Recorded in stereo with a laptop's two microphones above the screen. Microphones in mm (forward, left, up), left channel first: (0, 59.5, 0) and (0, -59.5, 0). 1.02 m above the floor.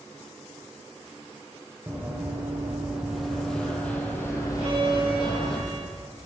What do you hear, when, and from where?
1.9 s running footsteps: 20° right (ahead or behind), 2 m; by 5.6 s 50° left (ahead or behind), 1.8 m
4.6 s a violin: 60° right (ahead or behind), 2 m